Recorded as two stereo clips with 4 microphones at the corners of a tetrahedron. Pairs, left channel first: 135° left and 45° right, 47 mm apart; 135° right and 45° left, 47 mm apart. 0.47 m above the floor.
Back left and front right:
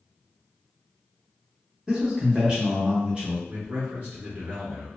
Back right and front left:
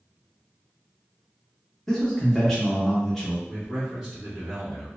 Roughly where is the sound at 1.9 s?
Right.